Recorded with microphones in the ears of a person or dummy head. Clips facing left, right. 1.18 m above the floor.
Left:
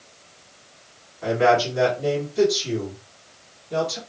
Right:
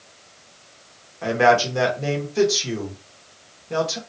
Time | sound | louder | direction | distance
1.2 | a man speaking | right 1 dB | 70° right (ahead or behind) | 1.6 m